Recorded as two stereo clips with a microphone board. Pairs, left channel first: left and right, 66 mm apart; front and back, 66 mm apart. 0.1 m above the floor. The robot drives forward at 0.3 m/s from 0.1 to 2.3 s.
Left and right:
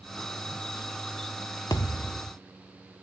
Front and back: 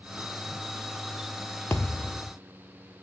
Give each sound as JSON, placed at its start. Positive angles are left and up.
{"t": 1.7, "sound": "a thud", "azimuth_deg": 60, "distance_m": 1.0}